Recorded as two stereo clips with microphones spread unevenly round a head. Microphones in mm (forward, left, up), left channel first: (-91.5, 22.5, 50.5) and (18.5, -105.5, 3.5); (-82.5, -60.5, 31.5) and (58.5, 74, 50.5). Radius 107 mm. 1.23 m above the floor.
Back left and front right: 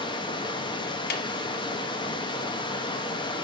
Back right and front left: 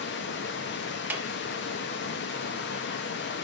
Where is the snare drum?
120° left, 0.6 m.